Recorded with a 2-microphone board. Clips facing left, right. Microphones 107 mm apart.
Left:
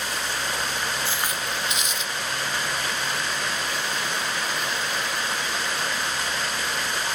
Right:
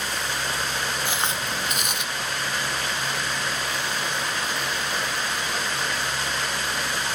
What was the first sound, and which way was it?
Footsteps, 15° right (ahead or behind).